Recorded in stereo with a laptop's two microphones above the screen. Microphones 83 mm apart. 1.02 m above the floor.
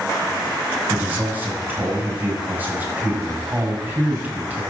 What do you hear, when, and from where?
0.9 s a man speaking: 20° right (ahead or behind), 6 m